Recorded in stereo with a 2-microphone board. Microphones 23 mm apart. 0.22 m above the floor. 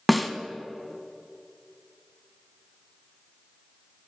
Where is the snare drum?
Centre (ahead or behind), 0.5 m.